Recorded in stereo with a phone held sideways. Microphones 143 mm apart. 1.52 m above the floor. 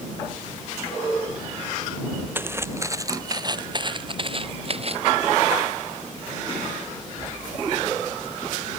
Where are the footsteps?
15° right (ahead or behind); by 5.1 s 50° right (ahead or behind).